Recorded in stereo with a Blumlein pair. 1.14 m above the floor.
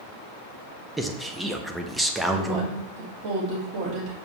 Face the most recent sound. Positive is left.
turn(degrees=-35)